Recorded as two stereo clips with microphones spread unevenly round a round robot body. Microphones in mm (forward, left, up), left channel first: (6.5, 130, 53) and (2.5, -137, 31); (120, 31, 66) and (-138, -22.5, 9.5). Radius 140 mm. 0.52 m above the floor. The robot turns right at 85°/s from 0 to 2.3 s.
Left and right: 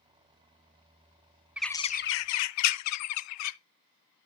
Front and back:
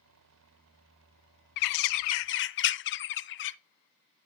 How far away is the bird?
About 0.5 m.